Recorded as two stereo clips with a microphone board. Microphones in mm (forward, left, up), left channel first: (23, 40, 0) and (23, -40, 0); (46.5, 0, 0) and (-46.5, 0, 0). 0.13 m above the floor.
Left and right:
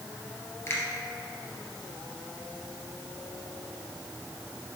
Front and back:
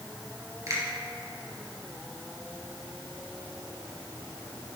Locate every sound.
0.7 s a finger snap: 135° left, 2.5 m